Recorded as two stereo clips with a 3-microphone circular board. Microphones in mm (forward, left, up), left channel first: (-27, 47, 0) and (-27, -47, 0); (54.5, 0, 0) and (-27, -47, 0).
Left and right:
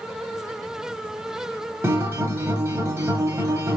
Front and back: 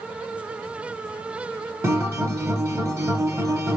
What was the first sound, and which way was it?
A guitar, 125° right.